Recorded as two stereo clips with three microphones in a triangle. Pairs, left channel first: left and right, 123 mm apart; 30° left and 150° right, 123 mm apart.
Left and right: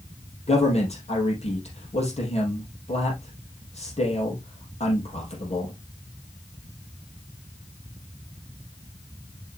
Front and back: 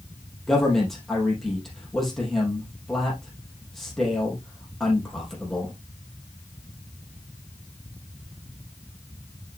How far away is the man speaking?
About 4 m.